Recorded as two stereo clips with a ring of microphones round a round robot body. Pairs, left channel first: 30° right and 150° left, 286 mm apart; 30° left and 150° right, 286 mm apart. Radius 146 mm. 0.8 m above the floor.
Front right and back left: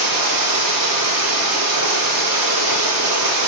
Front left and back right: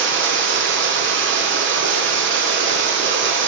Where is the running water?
160° left, 2.5 m.